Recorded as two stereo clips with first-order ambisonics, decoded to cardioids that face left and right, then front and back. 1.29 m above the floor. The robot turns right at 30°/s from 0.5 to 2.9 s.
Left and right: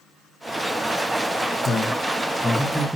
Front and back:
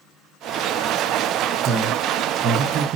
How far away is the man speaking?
About 0.5 m.